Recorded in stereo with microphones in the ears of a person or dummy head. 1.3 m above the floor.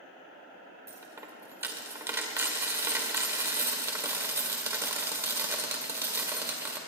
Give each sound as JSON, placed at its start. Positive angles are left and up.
{"t": 0.9, "sound": "a dropped coin", "side_deg": -15, "distance_m": 1.9}